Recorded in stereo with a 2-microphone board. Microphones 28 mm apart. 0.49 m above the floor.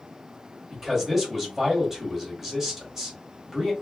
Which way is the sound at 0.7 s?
15° right (ahead or behind).